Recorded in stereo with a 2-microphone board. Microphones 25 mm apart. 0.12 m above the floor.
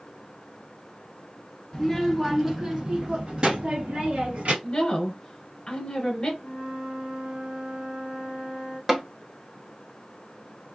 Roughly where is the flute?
Right.